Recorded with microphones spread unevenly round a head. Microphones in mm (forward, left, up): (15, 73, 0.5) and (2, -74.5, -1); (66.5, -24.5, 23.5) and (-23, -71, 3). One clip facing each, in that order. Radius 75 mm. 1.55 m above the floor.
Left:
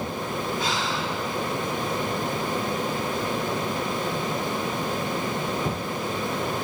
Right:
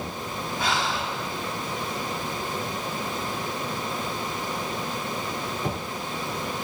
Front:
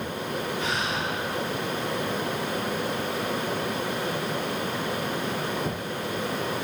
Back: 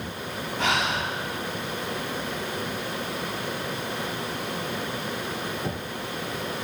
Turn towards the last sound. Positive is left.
turn(degrees=-135)